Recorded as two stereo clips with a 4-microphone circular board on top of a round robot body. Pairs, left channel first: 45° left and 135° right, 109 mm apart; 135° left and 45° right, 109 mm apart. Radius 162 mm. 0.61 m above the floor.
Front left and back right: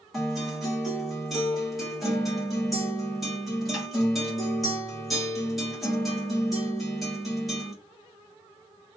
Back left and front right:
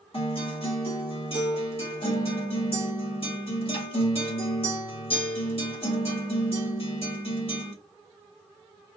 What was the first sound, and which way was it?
A guitar, 135° left.